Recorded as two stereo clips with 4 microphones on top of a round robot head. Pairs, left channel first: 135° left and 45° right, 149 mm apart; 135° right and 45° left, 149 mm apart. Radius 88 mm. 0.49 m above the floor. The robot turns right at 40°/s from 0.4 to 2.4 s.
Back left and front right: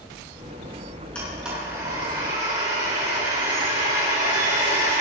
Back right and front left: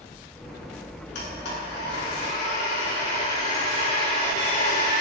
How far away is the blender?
About 6.5 m.